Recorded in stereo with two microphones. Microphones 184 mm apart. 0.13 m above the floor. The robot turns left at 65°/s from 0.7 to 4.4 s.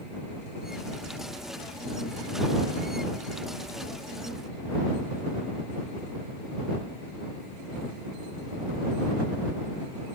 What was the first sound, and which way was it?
Only background noise.